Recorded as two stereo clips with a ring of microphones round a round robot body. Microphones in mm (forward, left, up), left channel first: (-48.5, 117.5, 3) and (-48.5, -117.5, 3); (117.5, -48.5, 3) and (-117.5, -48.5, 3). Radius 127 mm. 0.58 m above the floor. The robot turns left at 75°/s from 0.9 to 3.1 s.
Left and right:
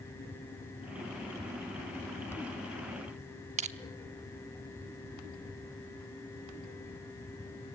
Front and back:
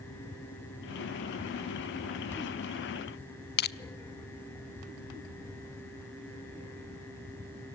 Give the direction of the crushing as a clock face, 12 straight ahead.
1 o'clock.